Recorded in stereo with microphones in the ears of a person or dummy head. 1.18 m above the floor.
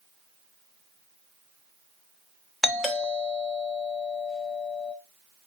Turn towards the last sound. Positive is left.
turn(degrees=0)  # may be behind; listen again after turning